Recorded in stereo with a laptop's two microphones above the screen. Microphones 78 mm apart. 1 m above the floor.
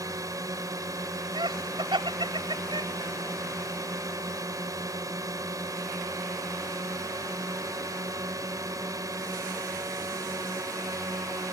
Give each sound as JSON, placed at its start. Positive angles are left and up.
{"t": 0.0, "sound": "a drone", "side_deg": -50}
{"t": 1.4, "sound": "laughter", "side_deg": -85}